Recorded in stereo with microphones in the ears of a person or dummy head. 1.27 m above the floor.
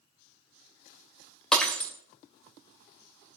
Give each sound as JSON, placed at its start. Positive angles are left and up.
{"t": 1.5, "sound": "breaking glass", "side_deg": 5, "distance_m": 2.0}